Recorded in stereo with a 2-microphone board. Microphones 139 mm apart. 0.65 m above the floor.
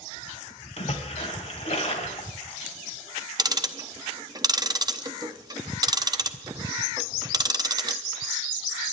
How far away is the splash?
About 2.5 m.